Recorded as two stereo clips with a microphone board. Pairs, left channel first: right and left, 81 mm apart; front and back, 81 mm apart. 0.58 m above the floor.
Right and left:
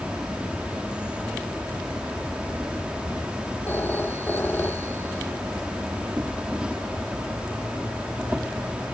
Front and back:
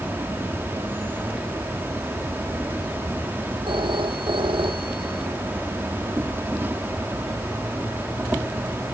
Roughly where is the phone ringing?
Behind.